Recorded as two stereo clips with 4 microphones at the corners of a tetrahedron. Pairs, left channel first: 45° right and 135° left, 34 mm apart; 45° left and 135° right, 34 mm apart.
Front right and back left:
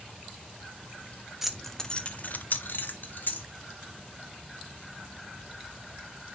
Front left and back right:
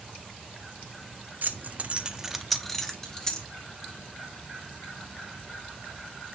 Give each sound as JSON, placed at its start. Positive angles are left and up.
{"t": 1.4, "sound": "keys jangling", "azimuth_deg": -145, "distance_m": 0.9}